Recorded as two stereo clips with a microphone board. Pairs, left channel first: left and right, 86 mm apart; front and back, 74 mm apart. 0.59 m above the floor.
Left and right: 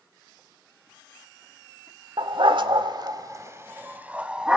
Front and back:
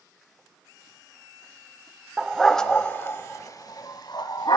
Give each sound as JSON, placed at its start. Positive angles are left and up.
{"t": 2.2, "sound": "a dog barking", "azimuth_deg": -95, "distance_m": 0.8}